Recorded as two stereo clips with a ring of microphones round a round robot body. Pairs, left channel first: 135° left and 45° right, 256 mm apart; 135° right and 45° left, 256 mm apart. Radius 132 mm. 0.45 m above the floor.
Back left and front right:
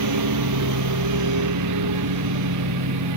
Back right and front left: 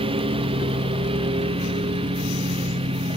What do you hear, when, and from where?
0.0 s a lawn mower: 25° right